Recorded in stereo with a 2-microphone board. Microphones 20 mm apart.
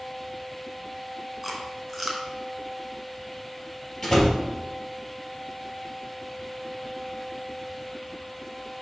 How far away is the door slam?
About 3 m.